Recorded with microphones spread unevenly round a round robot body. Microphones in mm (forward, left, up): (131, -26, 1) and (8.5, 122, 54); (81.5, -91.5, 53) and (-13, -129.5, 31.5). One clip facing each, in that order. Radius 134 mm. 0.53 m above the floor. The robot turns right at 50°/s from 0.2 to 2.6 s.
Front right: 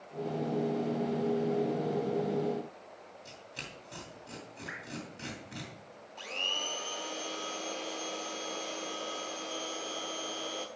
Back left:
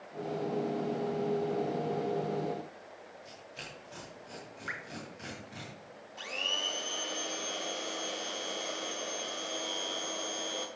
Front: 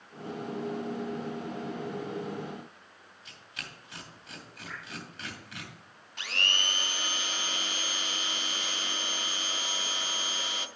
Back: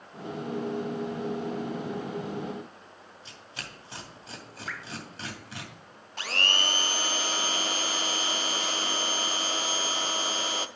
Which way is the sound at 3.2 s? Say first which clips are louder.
Even, back 2 dB; 105° right.